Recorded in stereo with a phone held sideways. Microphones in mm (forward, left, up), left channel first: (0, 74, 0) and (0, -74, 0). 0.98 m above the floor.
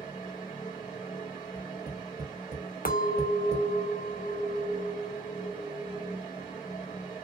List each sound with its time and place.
0.0 s a fan: 40° left (ahead or behind), 2.5 m
1.6 s tapping: 45° right (ahead or behind), 1.8 m
2.9 s a clink: 85° left, 0.6 m